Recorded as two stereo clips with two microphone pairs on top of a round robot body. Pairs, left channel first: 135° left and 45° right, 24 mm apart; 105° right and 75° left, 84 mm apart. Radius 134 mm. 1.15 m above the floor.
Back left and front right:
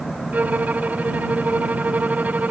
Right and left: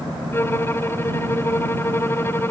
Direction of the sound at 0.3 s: 40° right.